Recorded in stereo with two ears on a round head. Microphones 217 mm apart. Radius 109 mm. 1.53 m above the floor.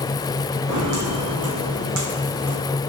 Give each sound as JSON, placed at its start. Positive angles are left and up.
{"t": 0.7, "sound": "footsteps", "side_deg": -70, "distance_m": 4.0}